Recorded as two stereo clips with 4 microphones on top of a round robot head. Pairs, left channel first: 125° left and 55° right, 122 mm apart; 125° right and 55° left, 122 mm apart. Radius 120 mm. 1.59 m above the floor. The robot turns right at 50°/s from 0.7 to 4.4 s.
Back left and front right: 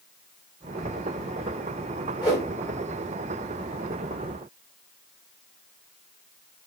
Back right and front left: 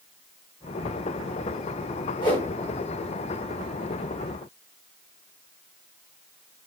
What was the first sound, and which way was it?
A whoosh, 175° right.